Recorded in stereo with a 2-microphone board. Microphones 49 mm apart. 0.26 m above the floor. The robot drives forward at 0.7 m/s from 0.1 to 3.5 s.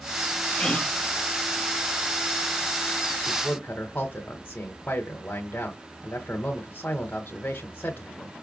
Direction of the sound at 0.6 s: 20° left (ahead or behind).